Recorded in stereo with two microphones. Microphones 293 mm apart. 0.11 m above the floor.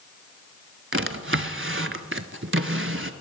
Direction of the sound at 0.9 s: 40° right (ahead or behind).